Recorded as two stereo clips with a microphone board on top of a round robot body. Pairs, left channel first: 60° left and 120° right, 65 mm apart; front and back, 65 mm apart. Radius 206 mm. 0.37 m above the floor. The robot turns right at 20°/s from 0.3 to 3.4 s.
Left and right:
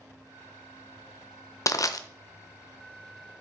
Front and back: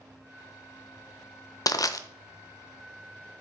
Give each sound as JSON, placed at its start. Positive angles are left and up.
{"t": 1.7, "sound": "crushing", "azimuth_deg": 25, "distance_m": 0.7}